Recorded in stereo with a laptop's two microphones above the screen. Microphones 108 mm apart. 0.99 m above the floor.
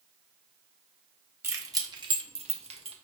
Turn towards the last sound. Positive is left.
turn(degrees=-65)  # may be behind; listen again after turning